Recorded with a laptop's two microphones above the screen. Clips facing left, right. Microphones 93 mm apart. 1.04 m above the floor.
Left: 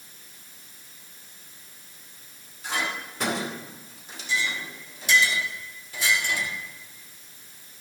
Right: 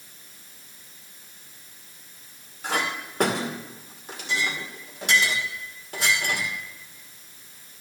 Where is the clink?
60° right (ahead or behind), 2 m.